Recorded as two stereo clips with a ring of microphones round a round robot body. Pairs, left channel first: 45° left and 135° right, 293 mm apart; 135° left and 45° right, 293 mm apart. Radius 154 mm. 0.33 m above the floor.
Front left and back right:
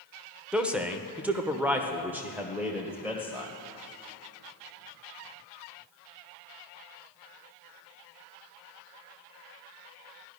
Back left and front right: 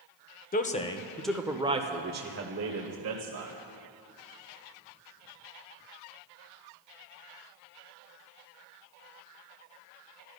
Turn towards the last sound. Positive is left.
turn(degrees=-50)